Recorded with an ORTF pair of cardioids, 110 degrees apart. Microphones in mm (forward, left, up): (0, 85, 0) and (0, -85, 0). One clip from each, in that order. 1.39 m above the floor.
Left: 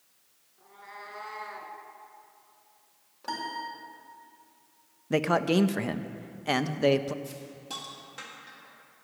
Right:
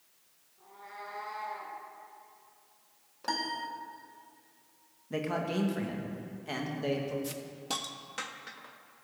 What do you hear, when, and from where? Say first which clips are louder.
0.6 s a cat meowing: left 1 dB; 20° left, 4 m; by 1.7 s 45° left, 3 m
3.2 s a piano: even; 20° right, 2 m
5.1 s a man speaking: left 8 dB; 55° left, 1.1 m
7.2 s a hiss: right 3 dB; 40° right, 1.6 m